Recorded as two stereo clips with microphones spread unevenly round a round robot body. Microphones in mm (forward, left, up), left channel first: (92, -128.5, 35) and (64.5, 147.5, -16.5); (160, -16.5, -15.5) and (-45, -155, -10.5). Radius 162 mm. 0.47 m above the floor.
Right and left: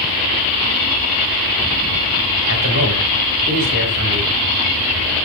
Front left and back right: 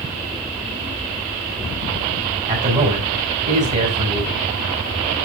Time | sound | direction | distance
2.5 | a man speaking | 145° left | 2.5 m